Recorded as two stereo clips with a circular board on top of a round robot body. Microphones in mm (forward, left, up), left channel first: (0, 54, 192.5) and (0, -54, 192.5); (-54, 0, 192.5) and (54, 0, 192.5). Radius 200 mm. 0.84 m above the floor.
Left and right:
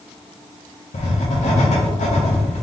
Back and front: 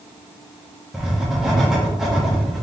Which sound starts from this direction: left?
Writing, at 0.9 s.